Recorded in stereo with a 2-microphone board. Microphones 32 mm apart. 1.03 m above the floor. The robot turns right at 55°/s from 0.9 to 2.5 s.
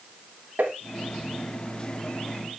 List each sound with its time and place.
0.6 s tapping: 75° right (ahead or behind), 2.5 m